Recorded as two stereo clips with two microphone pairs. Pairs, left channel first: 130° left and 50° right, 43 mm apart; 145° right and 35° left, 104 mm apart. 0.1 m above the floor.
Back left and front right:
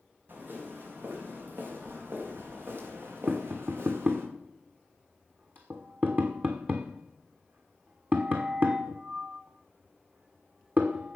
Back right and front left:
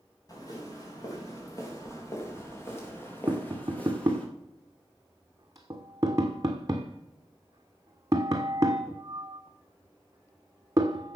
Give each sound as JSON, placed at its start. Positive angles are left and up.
{"t": 0.3, "sound": "footsteps", "azimuth_deg": -90, "distance_m": 6.0}
{"t": 3.3, "sound": "tapping", "azimuth_deg": -20, "distance_m": 1.5}